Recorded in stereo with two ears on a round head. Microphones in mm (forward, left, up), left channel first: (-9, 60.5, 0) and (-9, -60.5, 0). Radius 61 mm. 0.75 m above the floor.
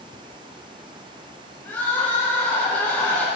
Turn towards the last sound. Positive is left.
turn(degrees=15)  # may be behind; listen again after turning